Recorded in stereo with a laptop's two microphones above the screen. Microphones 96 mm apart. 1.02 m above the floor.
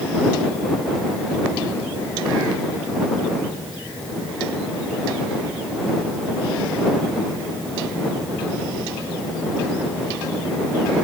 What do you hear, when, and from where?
Only background noise.